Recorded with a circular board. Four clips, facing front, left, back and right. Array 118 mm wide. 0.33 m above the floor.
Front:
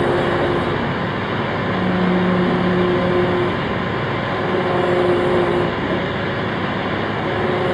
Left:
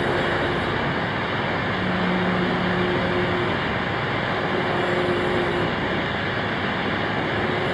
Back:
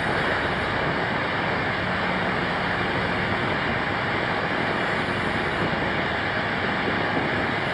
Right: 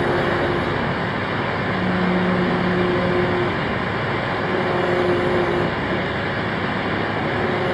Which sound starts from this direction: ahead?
An engine running, at 0.0 s.